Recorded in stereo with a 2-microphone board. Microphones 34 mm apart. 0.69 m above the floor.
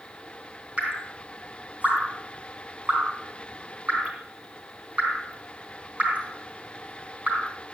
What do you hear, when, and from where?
0.8 s dripping: 45° right (ahead or behind), 4 m